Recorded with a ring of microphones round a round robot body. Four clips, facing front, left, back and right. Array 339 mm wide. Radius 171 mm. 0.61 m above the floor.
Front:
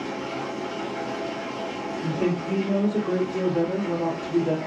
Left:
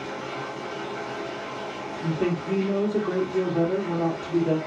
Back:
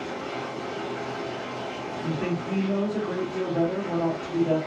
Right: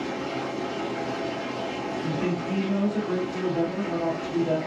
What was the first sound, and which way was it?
Running water, 40° right.